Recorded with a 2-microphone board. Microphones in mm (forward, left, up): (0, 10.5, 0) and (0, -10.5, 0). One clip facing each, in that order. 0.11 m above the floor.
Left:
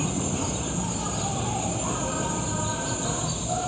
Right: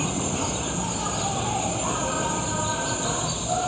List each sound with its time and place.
0.0 s an insect: 15° right (ahead or behind)